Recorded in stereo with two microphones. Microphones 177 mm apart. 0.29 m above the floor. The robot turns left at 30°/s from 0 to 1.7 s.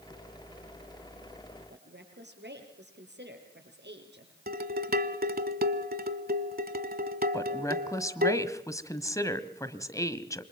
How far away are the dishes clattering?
About 1.3 m.